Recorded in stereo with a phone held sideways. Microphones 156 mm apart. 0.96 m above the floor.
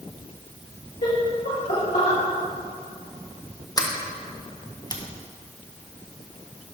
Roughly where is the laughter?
Left.